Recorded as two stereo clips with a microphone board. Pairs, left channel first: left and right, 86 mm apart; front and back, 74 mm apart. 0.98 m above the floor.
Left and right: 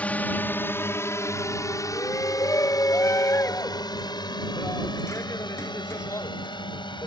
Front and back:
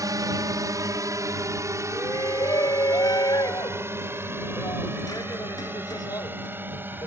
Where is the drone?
160° left; by 7.1 s 115° left.